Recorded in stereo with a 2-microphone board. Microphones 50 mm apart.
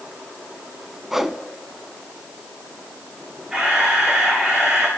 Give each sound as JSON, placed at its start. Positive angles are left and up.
{"t": 1.1, "sound": "a whoosh", "side_deg": -10, "distance_m": 0.8}
{"t": 3.5, "sound": "a camera shutter", "side_deg": -15, "distance_m": 3.5}